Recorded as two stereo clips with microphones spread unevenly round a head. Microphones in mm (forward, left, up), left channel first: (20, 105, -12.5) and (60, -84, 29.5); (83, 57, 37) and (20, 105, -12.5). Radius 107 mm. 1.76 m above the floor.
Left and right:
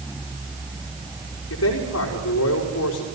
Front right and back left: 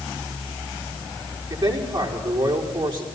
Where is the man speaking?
110° left, 4.5 m.